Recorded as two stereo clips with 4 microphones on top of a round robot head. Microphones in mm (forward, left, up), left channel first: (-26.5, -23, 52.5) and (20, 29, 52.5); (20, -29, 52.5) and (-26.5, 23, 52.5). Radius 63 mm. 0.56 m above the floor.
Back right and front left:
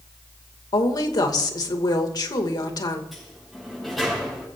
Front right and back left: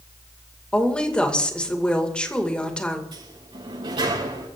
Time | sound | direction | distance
0.7 | a woman speaking | 120° right | 2.5 m
3.1 | a sliding door | 140° left | 6 m